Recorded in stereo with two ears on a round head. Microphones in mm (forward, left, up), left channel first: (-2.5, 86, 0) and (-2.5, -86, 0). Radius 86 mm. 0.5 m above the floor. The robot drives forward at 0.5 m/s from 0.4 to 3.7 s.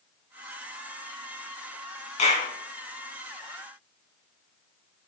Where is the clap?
40° left (ahead or behind), 3 m; by 2.5 s 35° left (ahead or behind), 3 m.